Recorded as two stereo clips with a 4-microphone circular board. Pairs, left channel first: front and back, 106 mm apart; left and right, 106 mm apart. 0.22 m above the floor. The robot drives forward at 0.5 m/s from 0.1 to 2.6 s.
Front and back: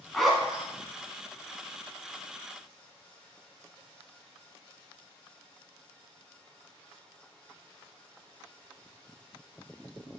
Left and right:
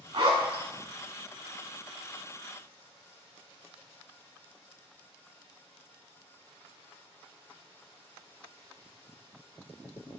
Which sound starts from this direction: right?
A zipper, at 0.1 s.